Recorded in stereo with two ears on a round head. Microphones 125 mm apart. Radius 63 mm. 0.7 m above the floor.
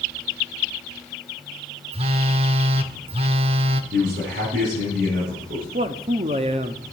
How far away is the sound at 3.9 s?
About 7 m.